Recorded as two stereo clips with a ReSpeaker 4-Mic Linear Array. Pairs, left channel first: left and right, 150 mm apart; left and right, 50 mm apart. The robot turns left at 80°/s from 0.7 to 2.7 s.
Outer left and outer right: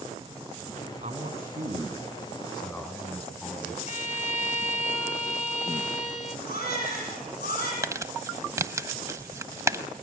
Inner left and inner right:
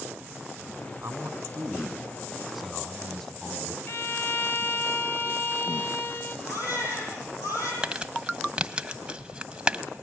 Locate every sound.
1.0 s a man speaking: 60° right, 4 m; by 3.8 s 165° left, 4 m
3.9 s a violin: 55° left (ahead or behind), 1.6 m
6.5 s a baby crying: 85° left, 9 m
7.8 s crumpling: 20° right (ahead or behind), 1.0 m